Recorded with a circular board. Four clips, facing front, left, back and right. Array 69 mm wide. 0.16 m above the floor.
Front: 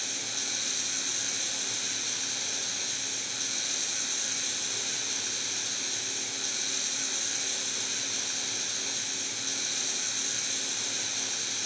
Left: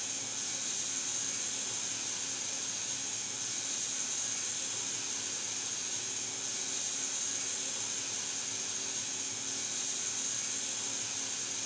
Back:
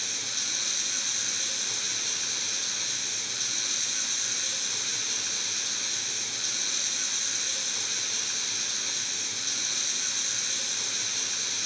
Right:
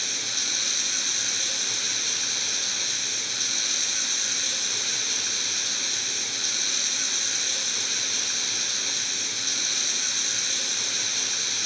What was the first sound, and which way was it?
Running water, 95° right.